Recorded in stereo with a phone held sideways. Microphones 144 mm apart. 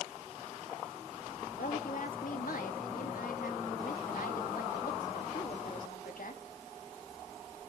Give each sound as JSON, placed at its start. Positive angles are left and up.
{"t": 1.6, "sound": "a woman speaking", "side_deg": 75, "distance_m": 2.5}